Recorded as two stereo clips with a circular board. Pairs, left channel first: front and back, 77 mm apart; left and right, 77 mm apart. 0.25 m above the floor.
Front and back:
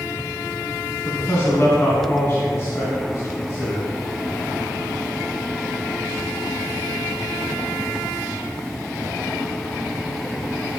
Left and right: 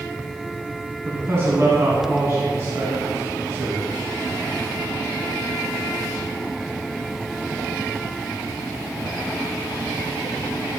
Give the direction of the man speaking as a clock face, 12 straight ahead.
2 o'clock.